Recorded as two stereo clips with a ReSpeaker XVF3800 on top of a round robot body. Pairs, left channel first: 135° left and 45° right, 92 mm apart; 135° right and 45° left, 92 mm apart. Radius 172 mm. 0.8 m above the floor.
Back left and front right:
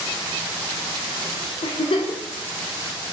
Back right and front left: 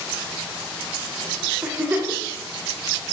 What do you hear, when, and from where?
1.6 s a giggle: 120° left, 0.6 m